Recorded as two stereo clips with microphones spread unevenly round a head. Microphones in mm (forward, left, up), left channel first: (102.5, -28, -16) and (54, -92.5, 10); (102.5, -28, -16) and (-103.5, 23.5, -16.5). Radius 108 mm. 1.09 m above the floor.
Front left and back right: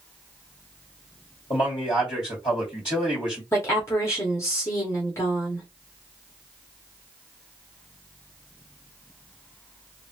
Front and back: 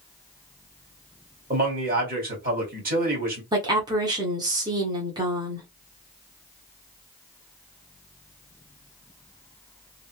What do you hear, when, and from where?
1.5 s a man speaking: 115° left, 1.7 m
3.5 s a woman speaking: 95° left, 1.0 m